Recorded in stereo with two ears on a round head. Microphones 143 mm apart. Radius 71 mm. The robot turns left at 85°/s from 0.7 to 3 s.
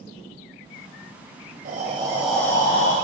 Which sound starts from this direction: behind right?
Breathing, at 1.6 s.